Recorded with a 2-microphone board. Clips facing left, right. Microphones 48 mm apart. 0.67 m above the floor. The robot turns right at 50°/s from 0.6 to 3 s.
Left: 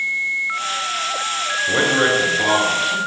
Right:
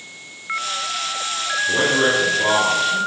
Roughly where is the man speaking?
Behind left.